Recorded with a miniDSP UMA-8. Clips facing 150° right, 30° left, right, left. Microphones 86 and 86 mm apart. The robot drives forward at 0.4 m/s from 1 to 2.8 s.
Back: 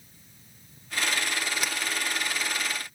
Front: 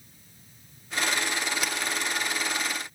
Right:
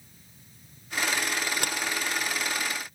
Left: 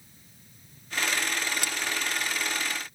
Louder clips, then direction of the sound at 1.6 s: Front 1 dB, right 2 dB; 60° right.